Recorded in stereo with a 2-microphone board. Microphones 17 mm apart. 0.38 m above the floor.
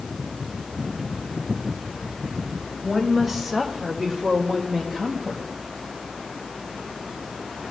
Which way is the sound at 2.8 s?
10° right (ahead or behind).